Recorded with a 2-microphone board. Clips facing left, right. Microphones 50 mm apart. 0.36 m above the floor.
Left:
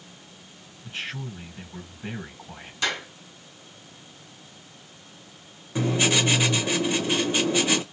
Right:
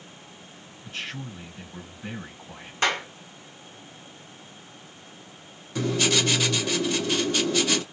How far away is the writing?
About 1.0 m.